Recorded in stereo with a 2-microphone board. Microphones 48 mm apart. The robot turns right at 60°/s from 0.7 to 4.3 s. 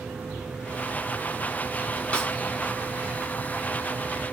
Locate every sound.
2.1 s a snare drum: 25° left (ahead or behind), 1.0 m; by 2.3 s 20° left (ahead or behind), 1.0 m